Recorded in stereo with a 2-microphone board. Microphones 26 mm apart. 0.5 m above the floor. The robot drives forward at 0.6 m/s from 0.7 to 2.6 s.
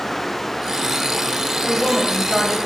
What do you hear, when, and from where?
1.6 s a woman speaking: 30° left (ahead or behind), 2.5 m; by 2.6 s 35° left (ahead or behind), 2 m